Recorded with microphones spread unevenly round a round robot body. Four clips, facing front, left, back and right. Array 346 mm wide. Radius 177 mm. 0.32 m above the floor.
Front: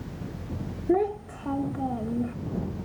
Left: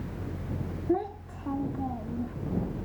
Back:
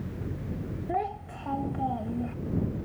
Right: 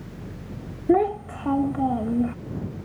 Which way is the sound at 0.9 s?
85° right.